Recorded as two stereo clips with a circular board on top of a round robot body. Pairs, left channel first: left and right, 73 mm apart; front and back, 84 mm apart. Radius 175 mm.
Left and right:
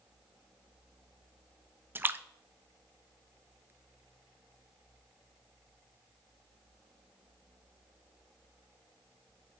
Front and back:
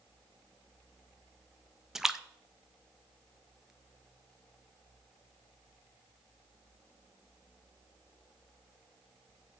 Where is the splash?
100° right, 0.5 m.